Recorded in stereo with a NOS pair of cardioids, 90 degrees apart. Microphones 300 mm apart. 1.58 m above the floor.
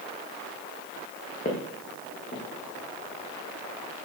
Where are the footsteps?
30° left, 5.5 m.